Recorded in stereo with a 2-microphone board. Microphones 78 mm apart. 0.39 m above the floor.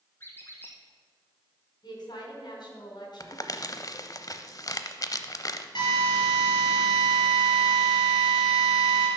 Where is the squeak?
30° left (ahead or behind), 1.6 m.